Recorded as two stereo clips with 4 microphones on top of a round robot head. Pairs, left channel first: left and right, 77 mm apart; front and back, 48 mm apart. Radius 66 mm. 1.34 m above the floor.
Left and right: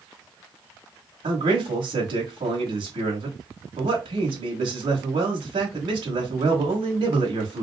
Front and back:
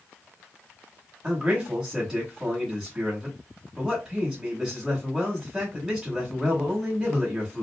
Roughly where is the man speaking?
Right.